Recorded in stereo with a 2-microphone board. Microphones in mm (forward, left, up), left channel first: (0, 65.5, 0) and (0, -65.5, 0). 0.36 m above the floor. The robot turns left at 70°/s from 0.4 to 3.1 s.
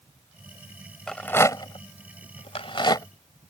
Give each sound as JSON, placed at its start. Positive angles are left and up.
{"t": 1.1, "sound": "a rattle", "side_deg": 5}